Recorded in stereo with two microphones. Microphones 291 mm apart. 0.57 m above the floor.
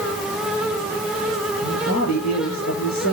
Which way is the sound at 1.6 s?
65° left (ahead or behind).